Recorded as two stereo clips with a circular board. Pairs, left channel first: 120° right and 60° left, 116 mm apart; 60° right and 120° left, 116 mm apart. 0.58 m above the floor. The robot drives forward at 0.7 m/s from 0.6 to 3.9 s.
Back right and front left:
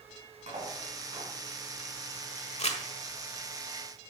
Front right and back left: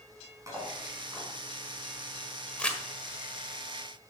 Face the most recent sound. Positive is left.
turn(degrees=-155)